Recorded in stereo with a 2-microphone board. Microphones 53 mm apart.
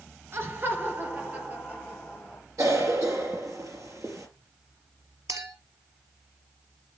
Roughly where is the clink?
Right.